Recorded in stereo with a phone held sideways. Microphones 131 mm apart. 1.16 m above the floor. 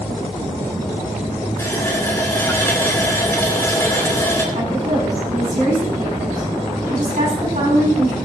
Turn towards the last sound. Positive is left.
turn(degrees=-75)  # may be behind; listen again after turning